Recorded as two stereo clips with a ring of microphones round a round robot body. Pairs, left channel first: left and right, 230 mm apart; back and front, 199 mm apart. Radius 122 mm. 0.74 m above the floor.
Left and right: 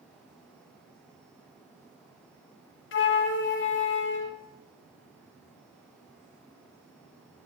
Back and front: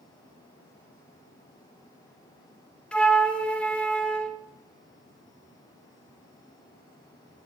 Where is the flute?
95° left, 0.7 m.